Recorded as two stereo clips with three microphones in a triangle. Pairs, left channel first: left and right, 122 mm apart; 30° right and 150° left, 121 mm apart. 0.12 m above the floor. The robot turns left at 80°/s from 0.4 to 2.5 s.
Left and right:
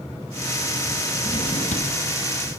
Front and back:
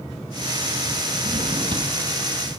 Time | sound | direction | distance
1.2 | a drawer | 135° left | 1.2 m